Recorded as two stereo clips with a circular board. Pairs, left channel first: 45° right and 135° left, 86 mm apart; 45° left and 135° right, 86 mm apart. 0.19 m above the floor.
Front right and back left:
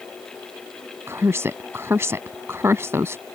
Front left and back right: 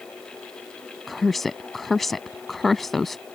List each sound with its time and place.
1.1 s a woman speaking: 130° left